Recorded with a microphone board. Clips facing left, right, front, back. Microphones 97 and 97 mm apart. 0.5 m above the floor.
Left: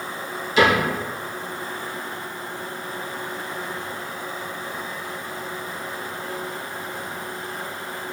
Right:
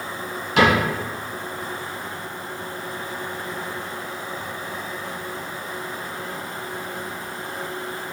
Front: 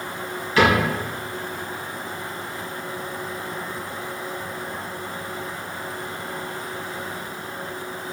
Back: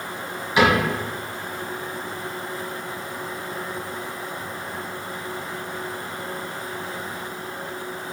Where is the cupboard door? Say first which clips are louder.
Even, even; 110° right, 1.3 m.